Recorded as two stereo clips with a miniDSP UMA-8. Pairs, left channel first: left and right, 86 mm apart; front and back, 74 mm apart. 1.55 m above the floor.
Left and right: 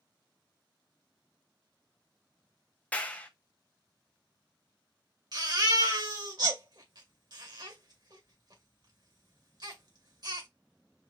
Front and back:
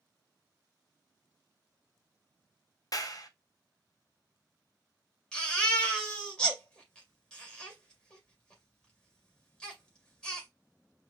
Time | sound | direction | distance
2.9 | a clap | 20° left | 0.8 m
5.3 | a baby crying | 75° right | 2 m